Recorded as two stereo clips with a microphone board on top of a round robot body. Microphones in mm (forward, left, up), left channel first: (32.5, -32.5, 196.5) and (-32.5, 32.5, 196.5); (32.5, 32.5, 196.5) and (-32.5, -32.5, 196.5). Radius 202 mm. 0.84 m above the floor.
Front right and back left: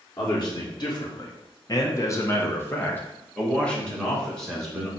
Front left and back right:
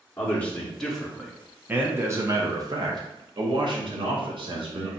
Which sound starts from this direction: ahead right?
A man speaking, at 0.2 s.